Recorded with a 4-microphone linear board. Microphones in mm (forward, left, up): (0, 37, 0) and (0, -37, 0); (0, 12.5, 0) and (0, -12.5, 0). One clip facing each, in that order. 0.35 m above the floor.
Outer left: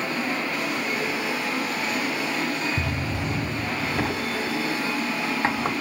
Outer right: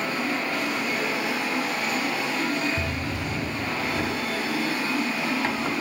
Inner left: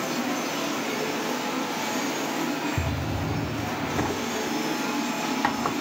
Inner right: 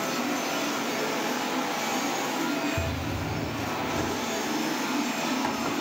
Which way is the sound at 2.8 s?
35° left (ahead or behind).